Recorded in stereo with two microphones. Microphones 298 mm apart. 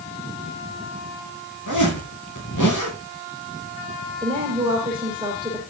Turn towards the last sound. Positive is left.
turn(degrees=-15)  # may be behind; listen again after turning